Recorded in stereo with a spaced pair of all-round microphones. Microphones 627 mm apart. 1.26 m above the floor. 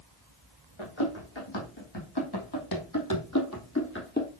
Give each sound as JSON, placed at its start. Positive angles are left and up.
{"t": 0.8, "sound": "running footsteps", "side_deg": 50, "distance_m": 3.0}